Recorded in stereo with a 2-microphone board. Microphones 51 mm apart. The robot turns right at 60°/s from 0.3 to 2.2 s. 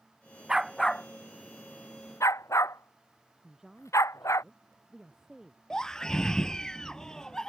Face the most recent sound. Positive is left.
turn(degrees=15)  # may be behind; listen again after turning